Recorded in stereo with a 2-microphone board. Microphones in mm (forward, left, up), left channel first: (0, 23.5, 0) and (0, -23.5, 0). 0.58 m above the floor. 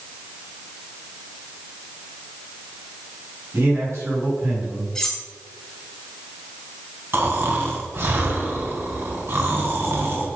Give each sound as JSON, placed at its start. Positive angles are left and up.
{"t": 3.5, "sound": "a man speaking", "side_deg": -70, "distance_m": 5.0}
{"t": 5.0, "sound": "cutlery clinking", "side_deg": 10, "distance_m": 2.0}
{"t": 7.1, "sound": "snoring", "side_deg": -50, "distance_m": 2.5}